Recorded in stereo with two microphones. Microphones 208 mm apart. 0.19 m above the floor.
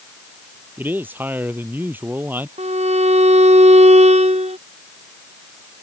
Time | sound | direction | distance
0.8 | a man speaking | 10° right (ahead or behind) | ?
2.6 | a violin | 35° right (ahead or behind) | ?